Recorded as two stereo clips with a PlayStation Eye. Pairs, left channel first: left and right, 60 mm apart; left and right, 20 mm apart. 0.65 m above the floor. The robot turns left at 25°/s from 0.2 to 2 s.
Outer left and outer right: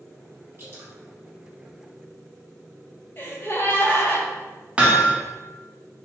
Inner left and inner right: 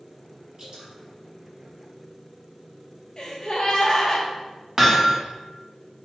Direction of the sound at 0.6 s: 40° right (ahead or behind).